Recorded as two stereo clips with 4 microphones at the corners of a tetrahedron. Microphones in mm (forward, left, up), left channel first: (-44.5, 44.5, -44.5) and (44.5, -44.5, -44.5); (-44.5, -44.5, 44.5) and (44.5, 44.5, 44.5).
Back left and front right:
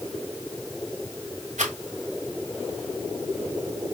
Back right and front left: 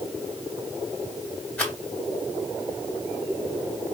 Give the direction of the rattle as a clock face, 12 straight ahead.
2 o'clock.